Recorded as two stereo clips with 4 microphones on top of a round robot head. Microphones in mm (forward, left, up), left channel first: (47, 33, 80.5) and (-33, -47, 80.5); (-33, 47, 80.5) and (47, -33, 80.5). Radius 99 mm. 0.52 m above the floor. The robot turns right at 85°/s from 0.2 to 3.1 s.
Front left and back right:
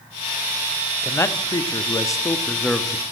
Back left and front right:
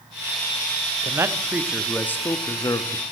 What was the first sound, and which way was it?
A man speaking, 15° right.